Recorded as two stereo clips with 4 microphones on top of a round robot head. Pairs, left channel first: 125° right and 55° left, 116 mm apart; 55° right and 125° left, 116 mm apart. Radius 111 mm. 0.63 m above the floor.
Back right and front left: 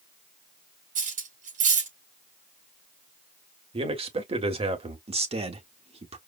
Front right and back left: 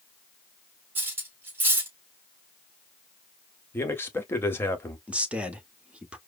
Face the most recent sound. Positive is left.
turn(degrees=45)